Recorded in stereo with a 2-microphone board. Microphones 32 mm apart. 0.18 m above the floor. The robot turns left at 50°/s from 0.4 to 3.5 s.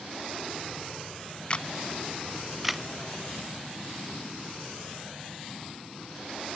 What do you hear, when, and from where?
1.5 s a camera shutter: 30° left (ahead or behind), 0.6 m; by 2.8 s 15° right (ahead or behind), 0.6 m